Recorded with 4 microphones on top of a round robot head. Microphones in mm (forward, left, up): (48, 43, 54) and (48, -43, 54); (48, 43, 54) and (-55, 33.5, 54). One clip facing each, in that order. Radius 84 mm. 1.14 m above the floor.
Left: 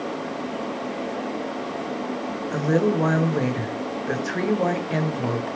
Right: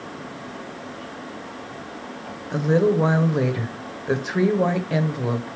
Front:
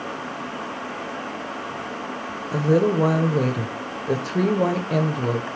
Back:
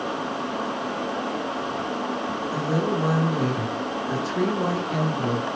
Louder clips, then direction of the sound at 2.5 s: Right 2 dB, front 7 dB; 5° right.